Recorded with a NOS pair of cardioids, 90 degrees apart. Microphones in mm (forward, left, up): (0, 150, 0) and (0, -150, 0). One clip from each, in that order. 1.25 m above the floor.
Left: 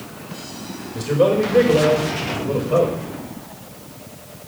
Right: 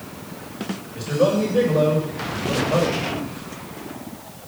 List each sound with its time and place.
0.9 s a man speaking: 70° left, 4 m